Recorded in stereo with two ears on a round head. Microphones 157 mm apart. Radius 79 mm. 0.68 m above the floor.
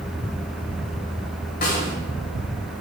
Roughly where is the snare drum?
Left.